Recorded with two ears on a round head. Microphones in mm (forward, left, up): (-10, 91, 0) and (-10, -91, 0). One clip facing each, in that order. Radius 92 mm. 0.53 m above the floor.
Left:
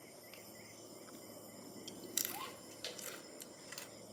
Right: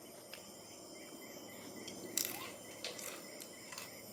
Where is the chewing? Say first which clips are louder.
Right 1 dB; 10° left (ahead or behind), 1.0 m.